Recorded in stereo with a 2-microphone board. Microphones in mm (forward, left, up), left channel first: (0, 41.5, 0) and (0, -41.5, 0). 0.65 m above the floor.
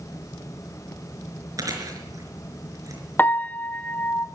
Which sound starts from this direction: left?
A piano, at 3.2 s.